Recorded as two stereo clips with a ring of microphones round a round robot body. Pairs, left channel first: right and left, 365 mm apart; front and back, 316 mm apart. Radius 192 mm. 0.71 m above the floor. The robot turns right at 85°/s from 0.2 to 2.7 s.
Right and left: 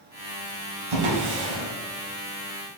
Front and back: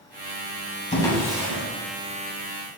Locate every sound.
0.9 s a drawer: 70° left, 1.3 m; by 1.6 s 130° left, 1.3 m